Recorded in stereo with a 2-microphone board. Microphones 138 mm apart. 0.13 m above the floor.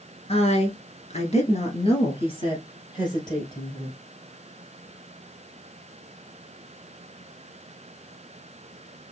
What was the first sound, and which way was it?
A woman speaking, 45° left (ahead or behind).